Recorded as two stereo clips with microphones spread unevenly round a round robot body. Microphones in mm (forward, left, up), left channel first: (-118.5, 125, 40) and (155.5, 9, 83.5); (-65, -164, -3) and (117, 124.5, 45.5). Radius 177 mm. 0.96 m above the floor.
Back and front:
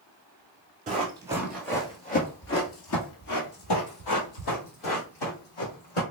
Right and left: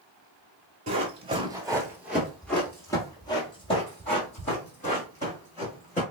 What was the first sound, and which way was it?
Running footsteps, 15° left.